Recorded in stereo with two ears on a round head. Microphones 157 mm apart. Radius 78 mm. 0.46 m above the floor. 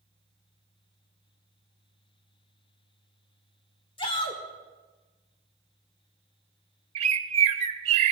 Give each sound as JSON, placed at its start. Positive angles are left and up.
{"t": 4.0, "sound": "a shout", "side_deg": 30, "distance_m": 1.7}
{"t": 7.0, "sound": "a bird", "side_deg": -35, "distance_m": 0.8}